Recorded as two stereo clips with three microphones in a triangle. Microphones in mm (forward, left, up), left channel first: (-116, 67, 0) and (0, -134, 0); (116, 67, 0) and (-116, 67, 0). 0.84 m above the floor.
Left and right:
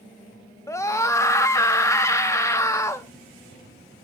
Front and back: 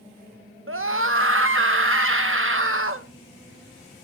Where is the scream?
160° right, 0.9 m.